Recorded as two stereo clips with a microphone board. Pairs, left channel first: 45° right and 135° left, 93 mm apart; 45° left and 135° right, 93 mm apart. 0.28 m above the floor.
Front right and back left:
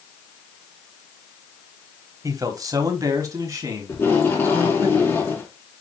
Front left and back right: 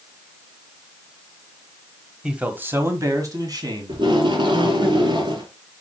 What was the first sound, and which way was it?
A man speaking, 145° left.